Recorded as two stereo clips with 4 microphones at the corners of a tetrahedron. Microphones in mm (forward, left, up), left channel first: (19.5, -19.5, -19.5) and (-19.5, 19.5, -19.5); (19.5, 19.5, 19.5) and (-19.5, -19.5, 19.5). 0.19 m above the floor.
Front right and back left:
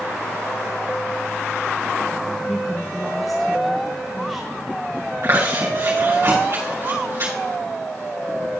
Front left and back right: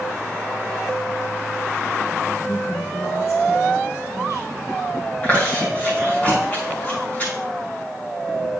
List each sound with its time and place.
2.5 s a woman speaking: 45° left, 3.5 m
5.2 s chewing: 105° left, 5 m